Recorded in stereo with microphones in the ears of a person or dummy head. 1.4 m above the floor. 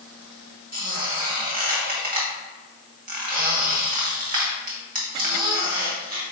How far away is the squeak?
About 0.9 m.